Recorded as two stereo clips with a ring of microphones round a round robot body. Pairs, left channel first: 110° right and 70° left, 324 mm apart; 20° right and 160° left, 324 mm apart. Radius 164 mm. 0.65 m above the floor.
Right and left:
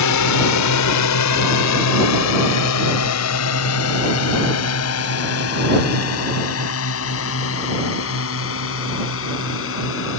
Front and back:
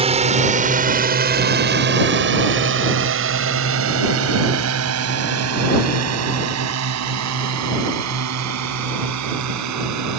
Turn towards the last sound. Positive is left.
turn(degrees=-165)